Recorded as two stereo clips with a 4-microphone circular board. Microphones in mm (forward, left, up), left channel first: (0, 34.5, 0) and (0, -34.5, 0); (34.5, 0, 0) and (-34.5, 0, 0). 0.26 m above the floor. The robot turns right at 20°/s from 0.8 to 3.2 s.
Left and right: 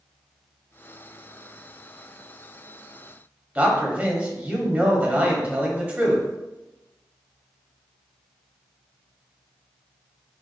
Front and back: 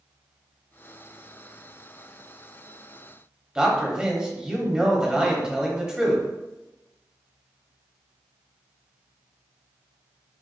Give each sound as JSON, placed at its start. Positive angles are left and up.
{"t": 3.5, "sound": "a man speaking", "azimuth_deg": -120, "distance_m": 1.1}